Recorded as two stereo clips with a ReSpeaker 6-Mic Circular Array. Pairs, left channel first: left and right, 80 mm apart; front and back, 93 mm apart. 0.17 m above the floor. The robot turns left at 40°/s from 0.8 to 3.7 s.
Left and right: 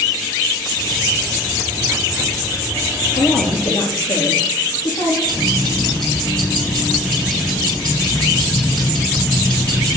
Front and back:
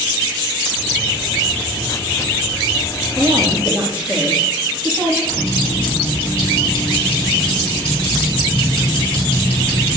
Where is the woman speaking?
100° left, 5.5 m; by 5.2 s 75° left, 5.5 m.